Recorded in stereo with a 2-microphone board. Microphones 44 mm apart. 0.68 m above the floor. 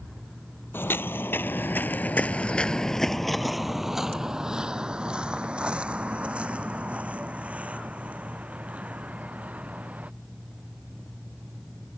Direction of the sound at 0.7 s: 55° left (ahead or behind).